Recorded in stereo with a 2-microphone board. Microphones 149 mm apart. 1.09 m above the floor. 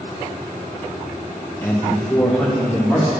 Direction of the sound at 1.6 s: 15° left (ahead or behind).